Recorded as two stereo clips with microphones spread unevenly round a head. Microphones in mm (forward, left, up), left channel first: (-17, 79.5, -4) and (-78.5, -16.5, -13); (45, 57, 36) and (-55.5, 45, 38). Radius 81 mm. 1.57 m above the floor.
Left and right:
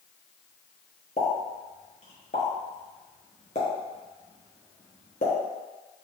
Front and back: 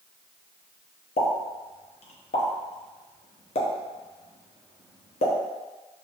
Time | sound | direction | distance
1.2 | a pop | 5° left | 0.9 m